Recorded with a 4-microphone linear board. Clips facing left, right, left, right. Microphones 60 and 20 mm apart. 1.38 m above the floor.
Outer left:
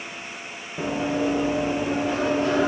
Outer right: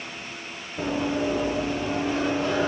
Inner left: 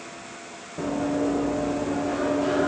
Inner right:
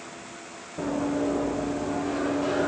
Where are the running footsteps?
25° left (ahead or behind), 4 m; by 2.7 s 60° left (ahead or behind), 5 m.